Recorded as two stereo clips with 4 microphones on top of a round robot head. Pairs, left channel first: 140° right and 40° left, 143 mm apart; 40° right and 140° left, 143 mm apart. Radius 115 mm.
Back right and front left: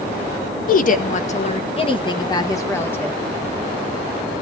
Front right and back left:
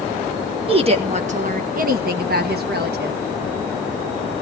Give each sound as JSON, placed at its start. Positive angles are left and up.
{"t": 0.7, "sound": "a woman speaking", "azimuth_deg": -170, "distance_m": 1.6}